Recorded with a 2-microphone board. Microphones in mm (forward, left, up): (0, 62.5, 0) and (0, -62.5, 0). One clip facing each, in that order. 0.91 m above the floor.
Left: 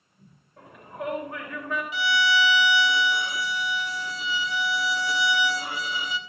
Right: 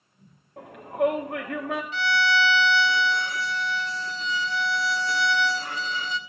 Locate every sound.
0.6 s a shout: 70° right (ahead or behind), 1.4 m
1.9 s a violin: 10° left (ahead or behind), 1.0 m